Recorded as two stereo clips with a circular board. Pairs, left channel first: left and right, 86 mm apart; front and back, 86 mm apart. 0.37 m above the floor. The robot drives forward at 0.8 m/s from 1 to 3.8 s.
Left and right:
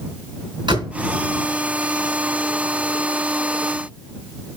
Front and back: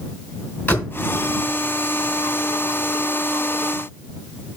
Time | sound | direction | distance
0.7 | a door slam | 65° right | 3 m